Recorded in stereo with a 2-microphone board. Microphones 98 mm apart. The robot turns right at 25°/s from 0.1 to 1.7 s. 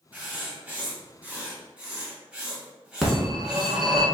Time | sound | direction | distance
0.1 | writing | 20° right (ahead or behind) | 1.0 m
3.0 | a phone ringing | centre (ahead or behind) | 0.9 m